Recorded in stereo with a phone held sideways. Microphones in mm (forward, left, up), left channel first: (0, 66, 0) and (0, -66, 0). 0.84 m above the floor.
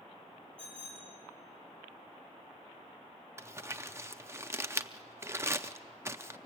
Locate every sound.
0.6 s a bicycle bell: 10° left (ahead or behind), 7.5 m
3.4 s crumpling: 20° right (ahead or behind), 0.6 m